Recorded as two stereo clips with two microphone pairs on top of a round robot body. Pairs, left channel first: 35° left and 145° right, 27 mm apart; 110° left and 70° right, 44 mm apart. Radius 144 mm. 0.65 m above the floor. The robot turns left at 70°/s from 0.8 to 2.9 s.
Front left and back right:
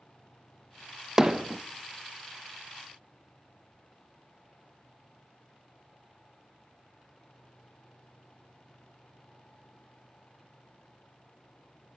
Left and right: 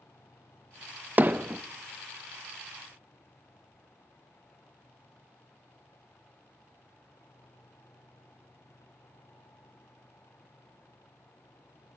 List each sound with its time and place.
1.2 s hammering: 80° right, 0.6 m; by 1.6 s 110° right, 0.6 m